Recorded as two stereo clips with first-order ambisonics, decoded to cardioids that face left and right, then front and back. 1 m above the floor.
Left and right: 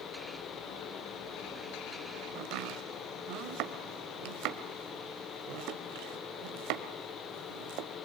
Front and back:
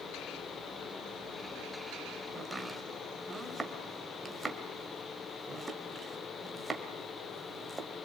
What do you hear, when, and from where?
2.4 s chopping: 105° right, 1.6 m